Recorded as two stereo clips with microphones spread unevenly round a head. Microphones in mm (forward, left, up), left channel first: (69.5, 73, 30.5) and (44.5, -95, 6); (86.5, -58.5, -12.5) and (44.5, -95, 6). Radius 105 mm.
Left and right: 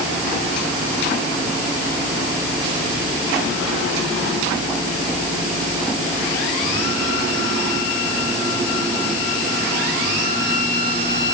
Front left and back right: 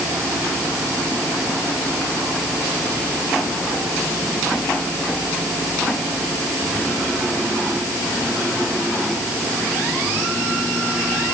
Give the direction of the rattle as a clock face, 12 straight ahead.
I don't hear a rattle.